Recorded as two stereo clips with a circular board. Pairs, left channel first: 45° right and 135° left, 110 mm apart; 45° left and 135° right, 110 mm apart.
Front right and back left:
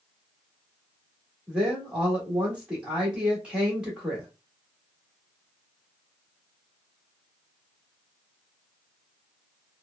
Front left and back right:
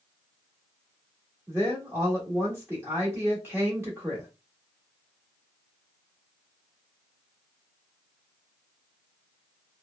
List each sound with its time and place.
1.5 s a woman speaking: 155° right, 1.4 m